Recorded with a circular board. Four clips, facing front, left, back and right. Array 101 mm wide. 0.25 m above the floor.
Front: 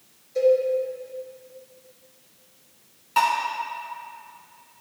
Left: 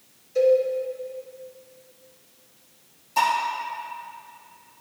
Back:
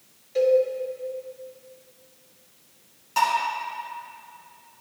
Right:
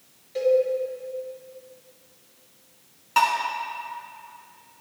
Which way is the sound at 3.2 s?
75° right.